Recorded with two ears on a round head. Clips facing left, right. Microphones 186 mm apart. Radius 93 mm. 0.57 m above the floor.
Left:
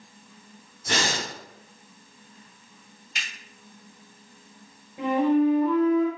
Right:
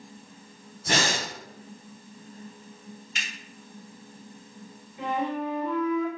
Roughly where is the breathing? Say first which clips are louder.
Right 1 dB; right.